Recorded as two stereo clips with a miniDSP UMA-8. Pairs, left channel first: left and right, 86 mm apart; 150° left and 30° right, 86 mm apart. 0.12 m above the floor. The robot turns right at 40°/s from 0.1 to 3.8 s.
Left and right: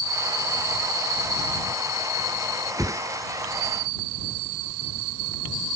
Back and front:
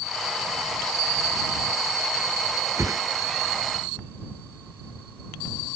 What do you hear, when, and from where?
2.8 s a whoosh: 65° right; by 3.0 s 55° right